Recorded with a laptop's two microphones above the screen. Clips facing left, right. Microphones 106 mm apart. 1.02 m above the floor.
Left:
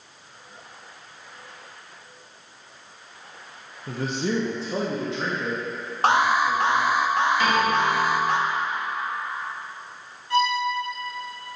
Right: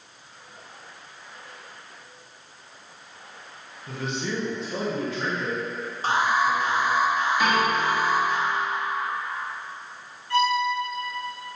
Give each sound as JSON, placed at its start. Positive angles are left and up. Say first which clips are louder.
{"t": 3.9, "sound": "a man speaking", "louder": "left 4 dB", "side_deg": 40, "distance_m": 0.7}
{"t": 6.0, "sound": "an alarm", "louder": "left 3 dB", "side_deg": 70, "distance_m": 0.6}
{"t": 7.4, "sound": "a piano", "louder": "left 1 dB", "side_deg": -10, "distance_m": 1.7}
{"t": 10.3, "sound": "a violin", "louder": "even", "side_deg": 20, "distance_m": 1.9}